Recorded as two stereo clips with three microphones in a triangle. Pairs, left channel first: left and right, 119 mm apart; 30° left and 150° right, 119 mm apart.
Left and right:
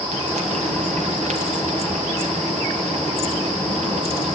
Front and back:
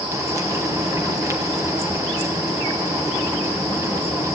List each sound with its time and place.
0.1 s frying: 85° right, 3 m